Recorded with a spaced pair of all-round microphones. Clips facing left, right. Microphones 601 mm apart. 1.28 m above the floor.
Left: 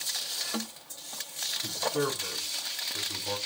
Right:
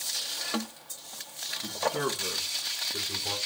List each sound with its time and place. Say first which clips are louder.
1.6 s a man speaking: left 1 dB; 80° right, 4 m; by 3.4 s 85° right, 5 m